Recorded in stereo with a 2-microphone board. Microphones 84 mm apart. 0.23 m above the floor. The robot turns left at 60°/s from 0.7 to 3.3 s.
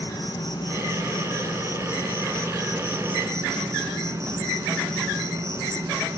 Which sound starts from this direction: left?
An insect, at 0.0 s.